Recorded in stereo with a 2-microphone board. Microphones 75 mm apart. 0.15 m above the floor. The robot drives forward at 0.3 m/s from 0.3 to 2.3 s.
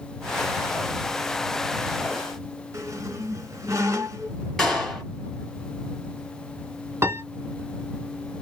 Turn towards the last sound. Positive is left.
turn(degrees=-40)  # may be behind; listen again after turning